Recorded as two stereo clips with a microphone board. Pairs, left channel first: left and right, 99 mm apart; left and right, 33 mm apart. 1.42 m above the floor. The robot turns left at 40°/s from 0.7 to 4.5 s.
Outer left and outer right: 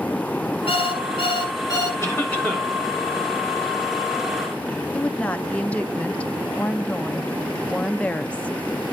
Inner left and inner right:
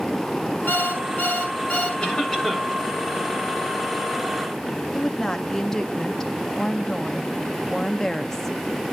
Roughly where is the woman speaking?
Centre.